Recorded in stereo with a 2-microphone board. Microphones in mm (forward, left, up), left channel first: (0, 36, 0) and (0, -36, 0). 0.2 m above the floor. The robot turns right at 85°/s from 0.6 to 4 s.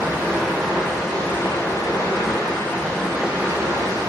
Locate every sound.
0.0 s running water: 30° right, 0.8 m; by 4.1 s 100° right, 0.8 m